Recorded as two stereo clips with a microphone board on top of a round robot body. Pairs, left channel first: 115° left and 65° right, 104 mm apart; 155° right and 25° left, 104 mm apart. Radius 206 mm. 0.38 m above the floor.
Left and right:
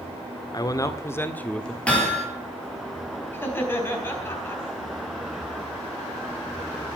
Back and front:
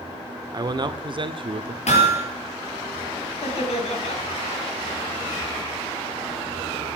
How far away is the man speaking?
About 1.8 m.